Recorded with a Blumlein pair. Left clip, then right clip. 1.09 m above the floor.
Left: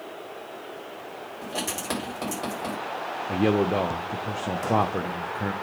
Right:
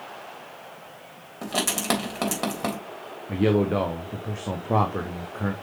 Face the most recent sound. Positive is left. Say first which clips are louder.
# right 1 dB
turn(degrees=0)